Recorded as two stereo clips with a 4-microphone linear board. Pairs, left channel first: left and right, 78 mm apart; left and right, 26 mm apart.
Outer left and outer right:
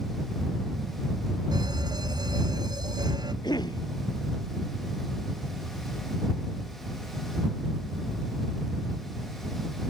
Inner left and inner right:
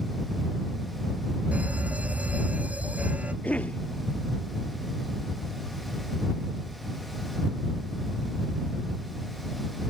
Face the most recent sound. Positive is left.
turn(degrees=70)  # may be behind; listen again after turning